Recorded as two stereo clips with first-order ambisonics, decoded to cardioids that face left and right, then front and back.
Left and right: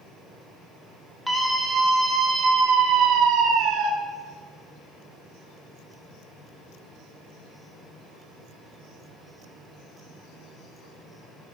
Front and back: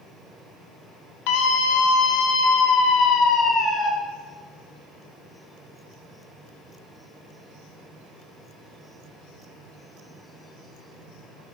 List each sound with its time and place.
1.3 s a scream: straight ahead, 2.5 m; by 3.9 s 65° right, 3.5 m